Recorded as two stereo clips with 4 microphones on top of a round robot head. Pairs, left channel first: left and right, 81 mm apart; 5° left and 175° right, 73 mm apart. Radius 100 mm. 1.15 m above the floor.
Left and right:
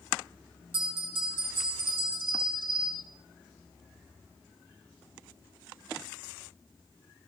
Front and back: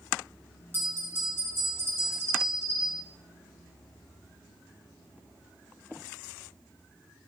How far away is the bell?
About 2.5 m.